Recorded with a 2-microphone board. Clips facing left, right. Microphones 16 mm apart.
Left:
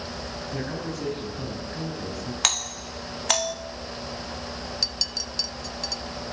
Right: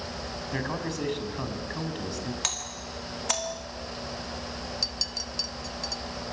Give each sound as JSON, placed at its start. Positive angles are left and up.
{"t": 0.5, "sound": "a man speaking", "side_deg": -55, "distance_m": 6.0}
{"t": 2.4, "sound": "a doorbell", "side_deg": 25, "distance_m": 2.0}
{"t": 4.8, "sound": "a clink", "side_deg": 5, "distance_m": 0.7}